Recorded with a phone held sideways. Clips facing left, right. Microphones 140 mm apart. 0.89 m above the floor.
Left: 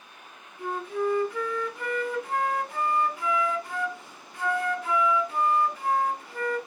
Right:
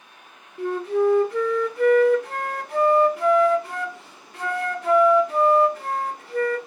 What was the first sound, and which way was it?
A flute, 65° right (ahead or behind).